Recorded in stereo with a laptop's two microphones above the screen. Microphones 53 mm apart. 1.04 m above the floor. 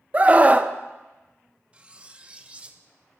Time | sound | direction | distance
0.1 | a scream | 25° right (ahead or behind) | 0.7 m
1.7 | cutlery clinking | 20° right (ahead or behind) | 0.7 m